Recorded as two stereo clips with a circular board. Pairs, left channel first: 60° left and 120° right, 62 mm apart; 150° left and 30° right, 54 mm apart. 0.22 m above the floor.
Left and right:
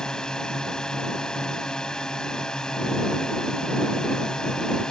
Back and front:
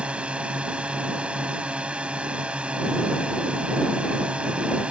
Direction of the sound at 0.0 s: Straight ahead.